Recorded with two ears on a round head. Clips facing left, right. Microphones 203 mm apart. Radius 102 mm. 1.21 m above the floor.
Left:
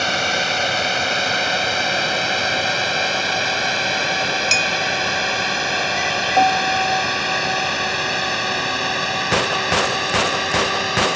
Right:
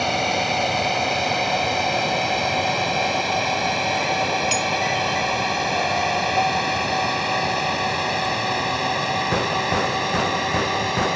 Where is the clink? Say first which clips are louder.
Right 1 dB; 25° left (ahead or behind).